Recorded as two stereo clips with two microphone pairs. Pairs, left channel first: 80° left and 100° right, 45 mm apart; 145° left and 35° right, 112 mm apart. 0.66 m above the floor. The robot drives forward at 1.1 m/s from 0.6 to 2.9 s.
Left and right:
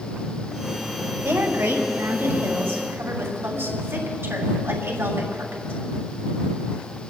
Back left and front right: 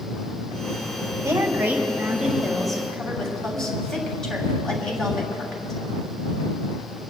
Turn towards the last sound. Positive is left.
turn(degrees=-130)